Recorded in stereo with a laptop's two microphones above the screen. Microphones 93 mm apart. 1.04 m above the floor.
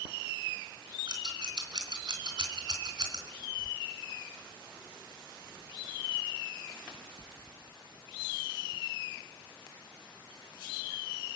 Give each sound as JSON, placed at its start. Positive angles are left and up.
{"t": 1.1, "sound": "scissors", "side_deg": -50, "distance_m": 3.5}